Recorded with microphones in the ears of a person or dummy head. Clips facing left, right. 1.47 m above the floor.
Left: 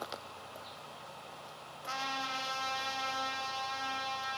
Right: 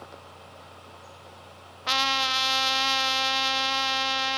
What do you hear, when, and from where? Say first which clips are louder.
1.9 s a trumpet: right 9 dB; 80° right, 0.8 m